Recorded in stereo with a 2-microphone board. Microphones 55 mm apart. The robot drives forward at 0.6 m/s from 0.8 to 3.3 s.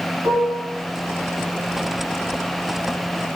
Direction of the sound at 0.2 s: 50° right (ahead or behind).